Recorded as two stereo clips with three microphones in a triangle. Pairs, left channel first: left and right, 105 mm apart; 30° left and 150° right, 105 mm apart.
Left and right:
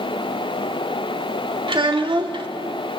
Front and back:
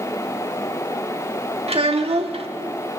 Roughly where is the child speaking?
Behind right.